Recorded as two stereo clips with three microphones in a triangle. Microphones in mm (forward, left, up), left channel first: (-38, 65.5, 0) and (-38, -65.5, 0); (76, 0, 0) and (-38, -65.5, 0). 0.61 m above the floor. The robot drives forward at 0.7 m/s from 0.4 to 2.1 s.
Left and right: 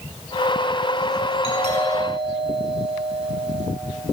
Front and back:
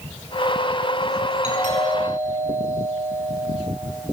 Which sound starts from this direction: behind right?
A doorbell, at 1.4 s.